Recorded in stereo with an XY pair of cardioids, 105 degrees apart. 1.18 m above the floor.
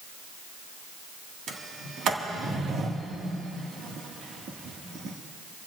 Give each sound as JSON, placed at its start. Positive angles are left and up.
{"t": 1.5, "sound": "a sliding door", "azimuth_deg": -65, "distance_m": 1.5}